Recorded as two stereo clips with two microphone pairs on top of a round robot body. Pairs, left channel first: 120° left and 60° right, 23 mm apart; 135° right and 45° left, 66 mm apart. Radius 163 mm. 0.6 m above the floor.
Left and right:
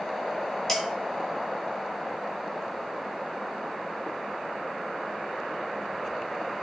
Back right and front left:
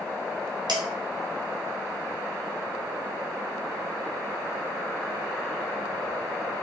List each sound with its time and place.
0.7 s dishes clattering: 50° left, 1.8 m